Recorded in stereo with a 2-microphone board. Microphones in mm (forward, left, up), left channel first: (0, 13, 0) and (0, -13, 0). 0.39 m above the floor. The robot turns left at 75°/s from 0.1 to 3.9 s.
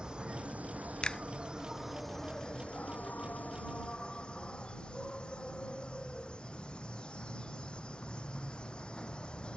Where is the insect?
35° right; by 9.6 s 40° left.